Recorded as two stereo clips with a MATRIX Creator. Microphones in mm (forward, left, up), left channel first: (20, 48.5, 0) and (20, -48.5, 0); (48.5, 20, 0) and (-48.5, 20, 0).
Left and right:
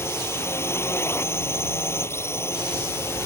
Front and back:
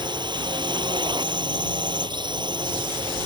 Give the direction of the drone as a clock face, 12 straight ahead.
7 o'clock.